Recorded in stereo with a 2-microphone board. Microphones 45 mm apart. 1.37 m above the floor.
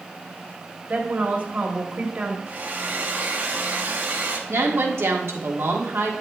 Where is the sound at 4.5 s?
65° right (ahead or behind), 1.5 m.